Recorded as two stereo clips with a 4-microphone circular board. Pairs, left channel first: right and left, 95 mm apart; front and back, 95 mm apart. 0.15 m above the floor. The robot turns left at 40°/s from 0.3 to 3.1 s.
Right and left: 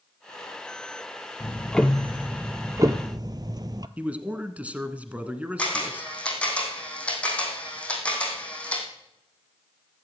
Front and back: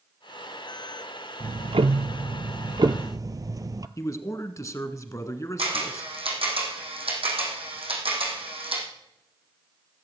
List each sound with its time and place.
1.4 s ticking: 160° right, 0.6 m; by 3.9 s 135° left, 0.6 m
4.0 s a man speaking: 25° left, 1.3 m
5.6 s a camera shutter: 170° right, 3.5 m